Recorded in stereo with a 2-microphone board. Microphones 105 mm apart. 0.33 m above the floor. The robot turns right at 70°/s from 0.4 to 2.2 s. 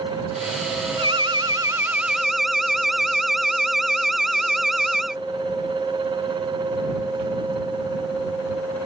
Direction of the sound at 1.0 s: 90° right.